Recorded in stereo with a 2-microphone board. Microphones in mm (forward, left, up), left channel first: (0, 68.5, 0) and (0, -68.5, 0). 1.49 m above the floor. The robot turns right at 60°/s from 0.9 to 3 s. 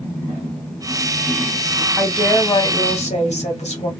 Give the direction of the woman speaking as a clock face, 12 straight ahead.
12 o'clock.